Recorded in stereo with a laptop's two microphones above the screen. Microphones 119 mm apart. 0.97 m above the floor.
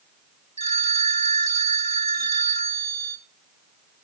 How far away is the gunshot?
No gunshot in this recording.